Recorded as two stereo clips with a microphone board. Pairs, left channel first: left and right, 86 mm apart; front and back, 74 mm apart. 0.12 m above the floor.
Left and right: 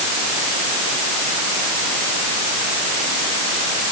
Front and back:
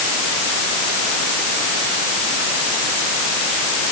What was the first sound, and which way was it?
Only background noise.